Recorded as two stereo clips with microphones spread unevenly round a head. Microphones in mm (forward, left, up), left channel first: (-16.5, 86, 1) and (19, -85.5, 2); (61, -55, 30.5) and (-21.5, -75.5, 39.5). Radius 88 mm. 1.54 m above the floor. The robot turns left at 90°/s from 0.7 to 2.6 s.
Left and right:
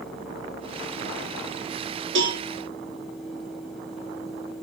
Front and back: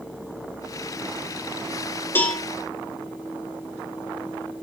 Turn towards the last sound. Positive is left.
turn(degrees=-90)